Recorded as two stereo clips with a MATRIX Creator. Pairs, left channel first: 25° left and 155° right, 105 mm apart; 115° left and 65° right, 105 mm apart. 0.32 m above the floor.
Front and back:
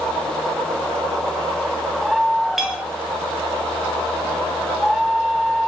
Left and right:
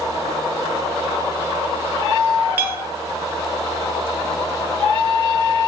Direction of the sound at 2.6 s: 75° right.